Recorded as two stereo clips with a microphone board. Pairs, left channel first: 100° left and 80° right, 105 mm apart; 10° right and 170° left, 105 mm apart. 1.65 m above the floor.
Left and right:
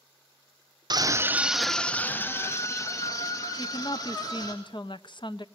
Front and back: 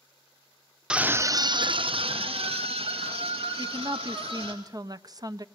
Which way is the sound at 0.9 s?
110° right.